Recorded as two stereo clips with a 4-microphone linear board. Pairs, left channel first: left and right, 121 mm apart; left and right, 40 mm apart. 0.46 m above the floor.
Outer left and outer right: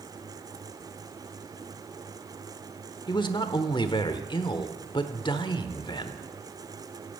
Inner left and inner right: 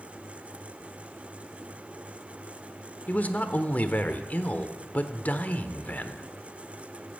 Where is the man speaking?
40° left (ahead or behind), 1.1 m.